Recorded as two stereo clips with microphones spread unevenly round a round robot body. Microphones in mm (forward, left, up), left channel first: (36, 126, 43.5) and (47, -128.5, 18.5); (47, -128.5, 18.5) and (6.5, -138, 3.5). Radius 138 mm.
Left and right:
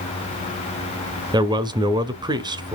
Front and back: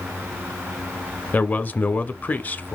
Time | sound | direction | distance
1.3 | a man speaking | 40° right | 1.1 m